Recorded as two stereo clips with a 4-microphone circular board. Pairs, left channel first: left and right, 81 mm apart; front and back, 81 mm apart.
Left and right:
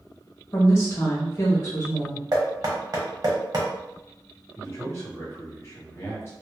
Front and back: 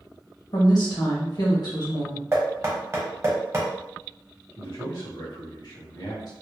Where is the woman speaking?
35° left, 1.1 m.